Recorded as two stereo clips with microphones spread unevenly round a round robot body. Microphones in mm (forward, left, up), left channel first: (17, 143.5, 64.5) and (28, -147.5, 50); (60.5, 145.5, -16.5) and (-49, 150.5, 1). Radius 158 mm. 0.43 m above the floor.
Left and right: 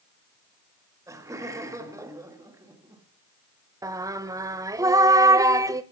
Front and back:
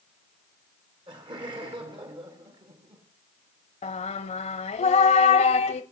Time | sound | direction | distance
1.1 | laughter | 155° right | 1.4 m
3.8 | singing | 10° right | 0.7 m